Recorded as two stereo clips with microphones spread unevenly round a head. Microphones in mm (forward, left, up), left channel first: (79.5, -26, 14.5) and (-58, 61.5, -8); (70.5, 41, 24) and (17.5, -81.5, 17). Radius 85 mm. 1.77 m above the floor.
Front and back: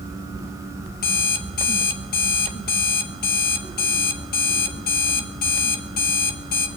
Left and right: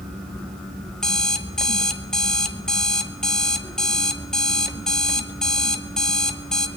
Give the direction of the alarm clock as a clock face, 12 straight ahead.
1 o'clock.